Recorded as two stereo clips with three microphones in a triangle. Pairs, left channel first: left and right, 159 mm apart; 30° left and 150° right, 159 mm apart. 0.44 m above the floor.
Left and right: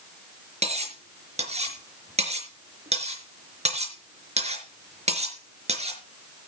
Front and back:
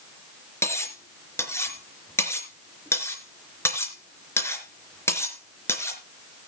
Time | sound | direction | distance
0.6 | cutlery clinking | 45° right | 4 m